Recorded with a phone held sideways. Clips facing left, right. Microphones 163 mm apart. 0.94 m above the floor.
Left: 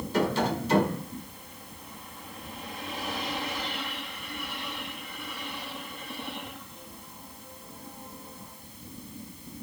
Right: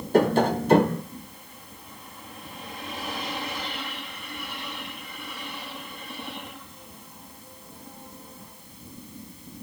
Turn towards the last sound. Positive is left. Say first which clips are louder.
# right 7 dB
turn(degrees=-50)  # may be behind; listen again after turning